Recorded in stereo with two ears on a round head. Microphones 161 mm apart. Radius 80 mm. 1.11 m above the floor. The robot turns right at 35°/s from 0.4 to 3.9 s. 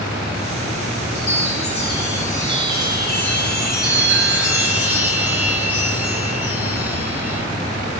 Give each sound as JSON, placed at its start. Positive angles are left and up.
{"t": 1.1, "sound": "a chime", "azimuth_deg": 95, "distance_m": 1.8}